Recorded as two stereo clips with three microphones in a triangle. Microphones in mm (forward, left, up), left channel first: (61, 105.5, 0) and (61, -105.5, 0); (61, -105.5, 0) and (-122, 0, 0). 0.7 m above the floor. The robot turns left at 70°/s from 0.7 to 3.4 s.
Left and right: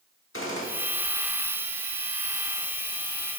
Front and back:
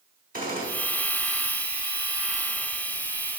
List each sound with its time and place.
0.3 s a gunshot: 105° left, 1.1 m; by 0.7 s 100° left, 1.1 m